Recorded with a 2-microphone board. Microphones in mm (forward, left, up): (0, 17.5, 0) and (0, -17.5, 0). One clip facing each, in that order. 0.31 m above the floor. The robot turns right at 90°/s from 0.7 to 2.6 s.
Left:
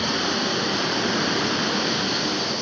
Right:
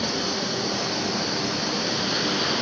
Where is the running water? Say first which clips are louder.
Left 3 dB; 40° left, 0.8 m; by 2.6 s 150° right, 0.8 m.